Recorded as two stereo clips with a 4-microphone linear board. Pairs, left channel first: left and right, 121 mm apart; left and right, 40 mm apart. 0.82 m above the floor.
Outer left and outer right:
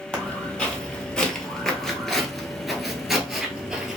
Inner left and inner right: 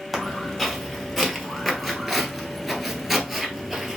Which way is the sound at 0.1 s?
5° left (ahead or behind).